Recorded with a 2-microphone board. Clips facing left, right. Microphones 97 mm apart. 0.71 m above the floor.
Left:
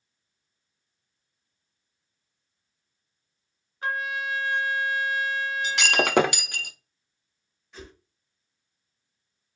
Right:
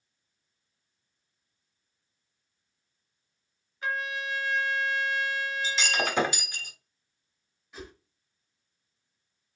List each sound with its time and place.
3.8 s a trumpet: 45° left (ahead or behind), 2.5 m
5.6 s breaking glass: 80° left, 0.5 m
7.7 s a whoosh: 5° right (ahead or behind), 1.0 m